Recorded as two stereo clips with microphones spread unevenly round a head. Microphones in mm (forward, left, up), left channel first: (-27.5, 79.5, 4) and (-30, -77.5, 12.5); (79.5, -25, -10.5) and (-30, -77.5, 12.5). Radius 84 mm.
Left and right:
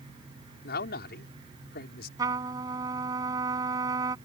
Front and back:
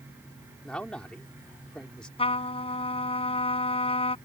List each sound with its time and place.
0.6 s a man speaking: 115° left
2.2 s a trumpet: 20° right